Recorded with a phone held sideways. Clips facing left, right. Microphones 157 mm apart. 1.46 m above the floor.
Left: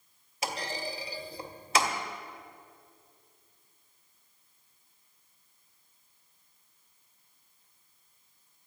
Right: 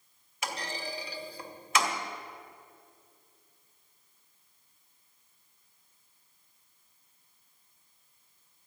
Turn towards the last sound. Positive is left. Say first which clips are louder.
# left 2 dB
turn(degrees=35)  # may be behind; listen again after turning